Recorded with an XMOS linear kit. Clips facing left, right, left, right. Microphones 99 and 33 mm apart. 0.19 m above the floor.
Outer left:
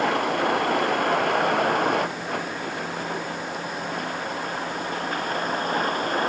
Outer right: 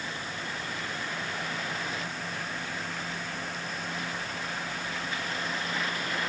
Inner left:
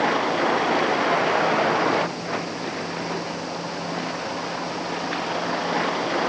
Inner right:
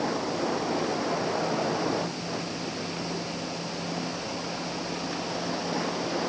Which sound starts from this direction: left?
A vehicle, at 0.0 s.